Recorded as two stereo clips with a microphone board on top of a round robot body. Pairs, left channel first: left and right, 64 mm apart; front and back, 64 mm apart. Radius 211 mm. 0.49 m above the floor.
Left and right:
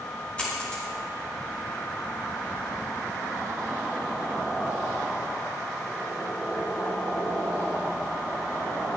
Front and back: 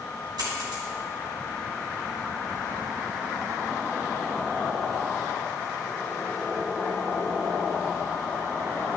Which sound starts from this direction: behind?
A dropped coin, at 0.4 s.